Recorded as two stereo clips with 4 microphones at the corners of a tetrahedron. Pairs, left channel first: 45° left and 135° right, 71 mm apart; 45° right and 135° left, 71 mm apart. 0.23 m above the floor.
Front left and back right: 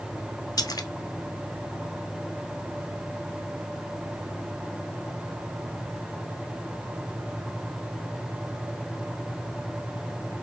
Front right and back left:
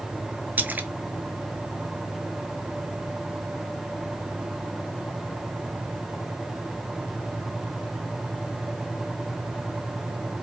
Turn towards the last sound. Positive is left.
turn(degrees=70)